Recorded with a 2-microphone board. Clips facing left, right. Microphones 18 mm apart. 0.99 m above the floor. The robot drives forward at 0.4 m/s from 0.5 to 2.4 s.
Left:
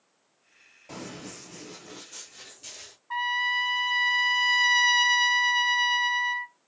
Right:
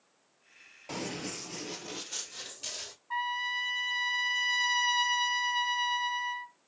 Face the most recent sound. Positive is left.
turn(degrees=20)  # may be behind; listen again after turning